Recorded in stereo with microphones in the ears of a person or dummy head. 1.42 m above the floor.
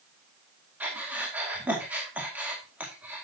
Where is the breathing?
Centre (ahead or behind), 2 m.